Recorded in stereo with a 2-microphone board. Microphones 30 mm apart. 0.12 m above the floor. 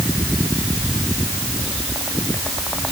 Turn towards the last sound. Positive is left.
No sound to turn to.